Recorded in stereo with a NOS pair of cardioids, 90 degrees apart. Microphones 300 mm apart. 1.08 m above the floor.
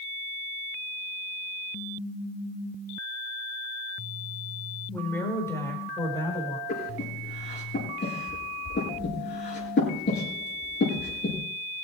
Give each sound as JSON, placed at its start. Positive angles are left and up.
{"t": 4.9, "sound": "a woman speaking", "azimuth_deg": 5, "distance_m": 4.5}
{"t": 6.7, "sound": "breathing", "azimuth_deg": 35, "distance_m": 7.5}